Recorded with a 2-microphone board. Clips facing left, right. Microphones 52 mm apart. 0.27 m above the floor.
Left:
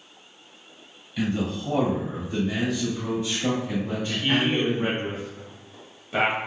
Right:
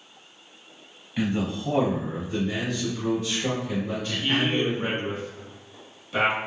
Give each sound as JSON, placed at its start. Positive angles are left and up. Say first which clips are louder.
{"t": 1.2, "sound": "a man speaking", "louder": "even", "side_deg": -25, "distance_m": 1.4}
{"t": 3.9, "sound": "a man speaking", "louder": "left 3 dB", "side_deg": 30, "distance_m": 1.3}